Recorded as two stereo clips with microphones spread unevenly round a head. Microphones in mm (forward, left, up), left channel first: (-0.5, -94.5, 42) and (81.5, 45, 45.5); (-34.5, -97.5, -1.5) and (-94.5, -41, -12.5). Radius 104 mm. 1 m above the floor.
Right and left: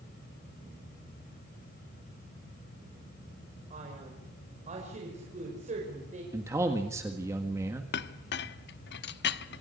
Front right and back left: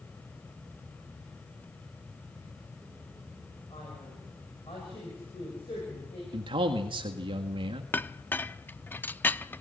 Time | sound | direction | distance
3.7 | a man speaking | 15° left | 5 m
6.3 | a man speaking | 135° left | 1.7 m
7.9 | a clink | 110° right | 0.9 m